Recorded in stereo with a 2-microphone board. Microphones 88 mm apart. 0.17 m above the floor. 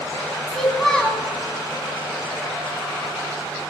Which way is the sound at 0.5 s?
5° left (ahead or behind).